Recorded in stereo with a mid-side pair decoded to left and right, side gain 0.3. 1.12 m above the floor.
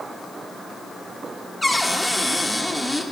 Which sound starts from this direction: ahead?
A cupboard door, at 1.6 s.